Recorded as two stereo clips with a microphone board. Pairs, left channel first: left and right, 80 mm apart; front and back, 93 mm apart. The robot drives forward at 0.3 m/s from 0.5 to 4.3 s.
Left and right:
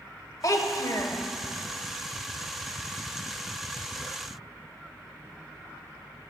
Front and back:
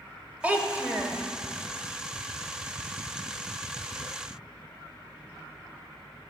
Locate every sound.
0.4 s a child speaking: 110° left, 0.9 m; by 1.2 s 125° left, 0.9 m